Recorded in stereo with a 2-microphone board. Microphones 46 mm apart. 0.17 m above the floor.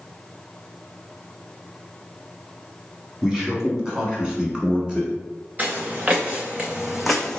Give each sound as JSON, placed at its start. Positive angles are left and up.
{"t": 3.2, "sound": "a man speaking", "side_deg": -10, "distance_m": 1.3}
{"t": 5.6, "sound": "footsteps", "side_deg": -35, "distance_m": 1.3}